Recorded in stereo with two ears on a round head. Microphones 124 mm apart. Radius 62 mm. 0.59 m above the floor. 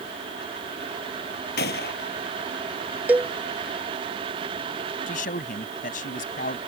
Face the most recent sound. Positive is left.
turn(degrees=65)  # may be behind; listen again after turning